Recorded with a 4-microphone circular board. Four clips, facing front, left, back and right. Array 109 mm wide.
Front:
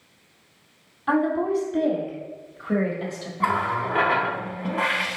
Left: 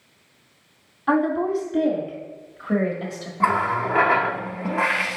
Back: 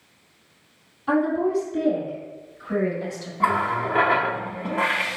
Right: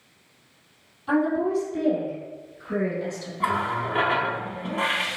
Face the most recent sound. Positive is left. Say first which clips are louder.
# left 5 dB, back 2 dB
turn(degrees=95)